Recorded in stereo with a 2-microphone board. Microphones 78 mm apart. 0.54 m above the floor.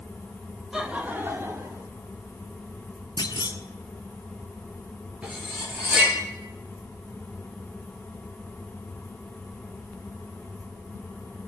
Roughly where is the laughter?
Centre.